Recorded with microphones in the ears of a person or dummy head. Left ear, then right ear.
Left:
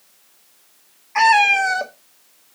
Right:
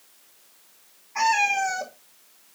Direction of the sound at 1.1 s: 45° left (ahead or behind).